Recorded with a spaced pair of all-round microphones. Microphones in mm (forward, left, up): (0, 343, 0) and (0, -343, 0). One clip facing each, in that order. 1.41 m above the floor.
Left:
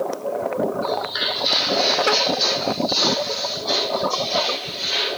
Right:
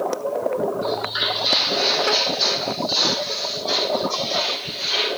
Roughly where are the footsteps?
Right.